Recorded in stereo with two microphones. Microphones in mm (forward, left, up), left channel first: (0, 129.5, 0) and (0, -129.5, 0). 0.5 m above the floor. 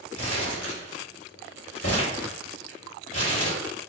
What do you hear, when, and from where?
0.1 s crumpling: 65° left (ahead or behind), 1.8 m